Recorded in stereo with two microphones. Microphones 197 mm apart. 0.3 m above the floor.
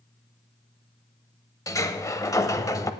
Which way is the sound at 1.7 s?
15° left (ahead or behind).